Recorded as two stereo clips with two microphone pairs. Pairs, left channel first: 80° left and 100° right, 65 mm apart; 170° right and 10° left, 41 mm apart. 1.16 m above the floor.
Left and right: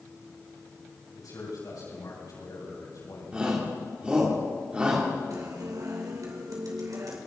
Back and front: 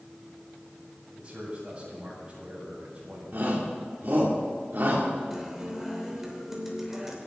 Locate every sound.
1.2 s a man speaking: 65° left, 8 m
3.3 s a shout: 30° right, 3 m
5.3 s a guitar: 75° right, 3 m